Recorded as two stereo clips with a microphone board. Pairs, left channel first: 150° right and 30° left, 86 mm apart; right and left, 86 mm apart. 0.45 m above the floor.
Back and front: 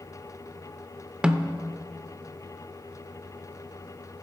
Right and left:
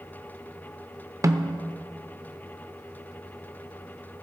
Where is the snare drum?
100° left, 0.6 m.